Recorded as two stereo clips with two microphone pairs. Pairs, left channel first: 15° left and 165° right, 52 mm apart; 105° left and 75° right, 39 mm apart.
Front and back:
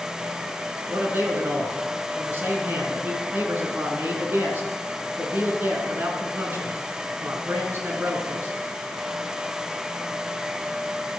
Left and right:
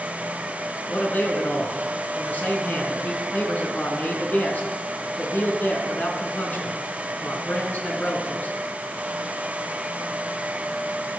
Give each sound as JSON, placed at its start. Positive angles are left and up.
{"t": 0.9, "sound": "a man speaking", "azimuth_deg": 150, "distance_m": 4.0}